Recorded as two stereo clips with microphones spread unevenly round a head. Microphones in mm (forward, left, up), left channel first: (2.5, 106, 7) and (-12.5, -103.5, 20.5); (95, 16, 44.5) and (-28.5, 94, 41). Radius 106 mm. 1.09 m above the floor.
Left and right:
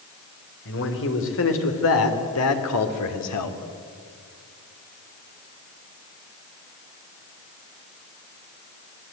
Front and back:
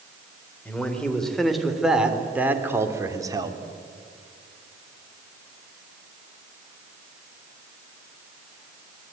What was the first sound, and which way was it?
A man speaking, 50° left.